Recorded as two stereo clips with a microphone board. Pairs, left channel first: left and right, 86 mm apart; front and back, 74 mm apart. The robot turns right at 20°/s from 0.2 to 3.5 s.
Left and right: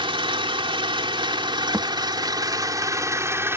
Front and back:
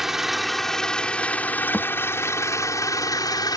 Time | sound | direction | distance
0.0 | an engine running | 95° right | ?
1.7 | a thud | 60° right | ?